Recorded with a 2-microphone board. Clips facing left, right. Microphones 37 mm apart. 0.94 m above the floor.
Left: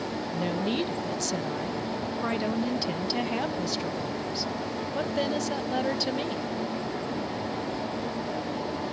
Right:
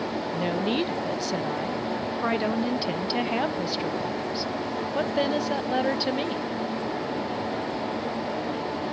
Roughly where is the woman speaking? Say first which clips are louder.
Right 2 dB; centre.